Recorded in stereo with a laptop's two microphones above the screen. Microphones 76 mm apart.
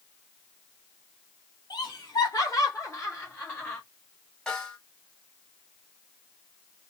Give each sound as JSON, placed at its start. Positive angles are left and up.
{"t": 1.7, "sound": "laughter", "side_deg": 65, "distance_m": 1.2}
{"t": 4.5, "sound": "a snare drum", "side_deg": 10, "distance_m": 2.0}